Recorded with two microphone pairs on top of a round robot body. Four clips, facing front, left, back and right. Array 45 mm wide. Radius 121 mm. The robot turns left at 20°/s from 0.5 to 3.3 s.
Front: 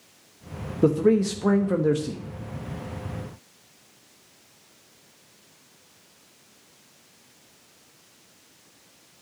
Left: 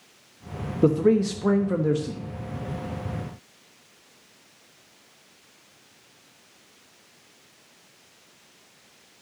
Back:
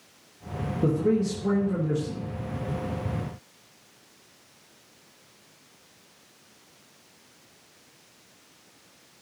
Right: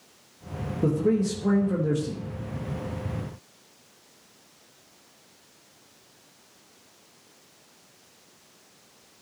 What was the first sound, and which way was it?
A man speaking, 55° left.